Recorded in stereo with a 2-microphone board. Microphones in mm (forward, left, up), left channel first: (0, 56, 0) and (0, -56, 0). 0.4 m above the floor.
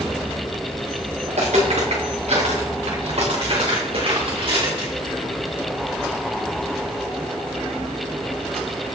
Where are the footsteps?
85° right, 3 m; by 4.9 s 45° right (ahead or behind), 3 m.